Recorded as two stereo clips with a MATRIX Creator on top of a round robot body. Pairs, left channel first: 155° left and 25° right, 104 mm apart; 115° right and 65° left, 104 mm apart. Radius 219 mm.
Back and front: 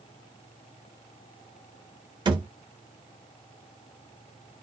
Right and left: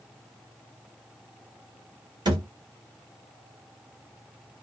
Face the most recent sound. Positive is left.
turn(degrees=25)